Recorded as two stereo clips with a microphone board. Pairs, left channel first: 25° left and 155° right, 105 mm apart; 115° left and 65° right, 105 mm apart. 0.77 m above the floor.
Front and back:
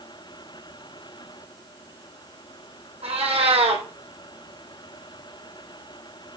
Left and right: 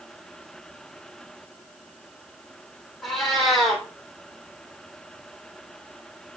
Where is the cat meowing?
160° right, 3 m.